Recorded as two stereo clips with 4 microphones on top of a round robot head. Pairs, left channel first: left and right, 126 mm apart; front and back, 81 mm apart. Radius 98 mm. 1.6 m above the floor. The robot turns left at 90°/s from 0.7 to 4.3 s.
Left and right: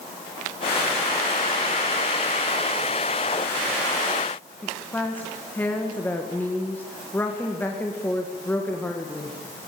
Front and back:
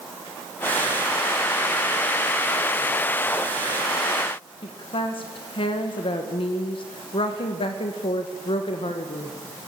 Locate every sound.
4.6 s a woman speaking: 10° left, 2 m